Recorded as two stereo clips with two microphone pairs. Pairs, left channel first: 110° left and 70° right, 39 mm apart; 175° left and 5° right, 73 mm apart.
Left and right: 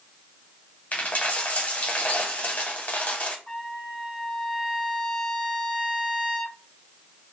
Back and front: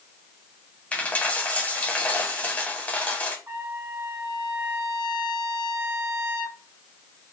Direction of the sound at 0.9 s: 115° left.